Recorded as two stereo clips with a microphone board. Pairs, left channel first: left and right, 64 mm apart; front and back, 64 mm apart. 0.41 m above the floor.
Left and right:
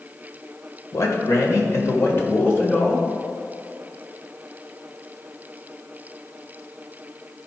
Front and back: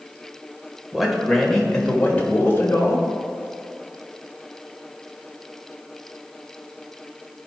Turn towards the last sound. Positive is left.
turn(degrees=30)